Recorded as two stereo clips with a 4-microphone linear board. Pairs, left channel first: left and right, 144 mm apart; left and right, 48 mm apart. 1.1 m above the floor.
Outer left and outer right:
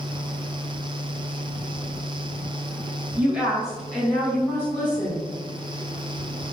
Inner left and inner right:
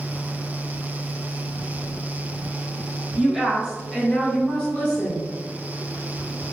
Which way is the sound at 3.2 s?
10° right (ahead or behind).